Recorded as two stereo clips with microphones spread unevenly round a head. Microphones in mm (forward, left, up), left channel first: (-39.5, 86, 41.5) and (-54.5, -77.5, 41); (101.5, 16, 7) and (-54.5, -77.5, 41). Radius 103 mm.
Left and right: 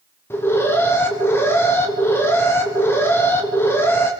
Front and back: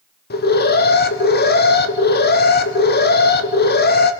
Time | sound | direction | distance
0.3 | an alarm | 5° left | 1.8 m